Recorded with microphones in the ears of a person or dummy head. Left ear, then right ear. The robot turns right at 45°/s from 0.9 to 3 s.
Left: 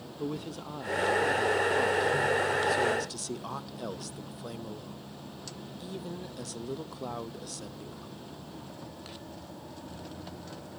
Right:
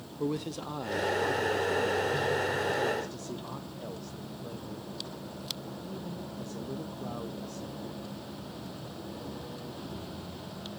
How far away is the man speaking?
About 0.7 m.